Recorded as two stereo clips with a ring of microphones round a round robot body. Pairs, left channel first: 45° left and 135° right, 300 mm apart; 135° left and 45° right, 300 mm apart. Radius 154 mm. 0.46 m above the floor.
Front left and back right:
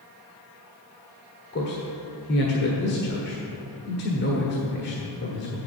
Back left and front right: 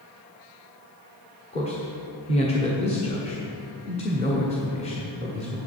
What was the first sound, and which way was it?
A man speaking, 75° left.